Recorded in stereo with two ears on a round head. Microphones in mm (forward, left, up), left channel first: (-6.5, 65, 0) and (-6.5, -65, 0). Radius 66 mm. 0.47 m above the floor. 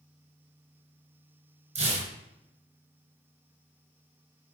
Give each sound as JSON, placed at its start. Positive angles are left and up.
{"t": 1.8, "sound": "tearing paper", "side_deg": -50, "distance_m": 2.0}